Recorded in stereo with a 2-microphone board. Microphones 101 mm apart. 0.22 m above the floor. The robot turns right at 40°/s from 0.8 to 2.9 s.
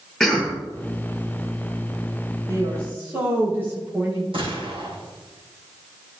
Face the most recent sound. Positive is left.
turn(degrees=-65)  # may be behind; listen again after turning